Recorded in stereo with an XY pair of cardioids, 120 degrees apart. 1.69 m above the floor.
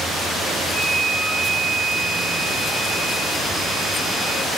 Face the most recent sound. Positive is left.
turn(degrees=-10)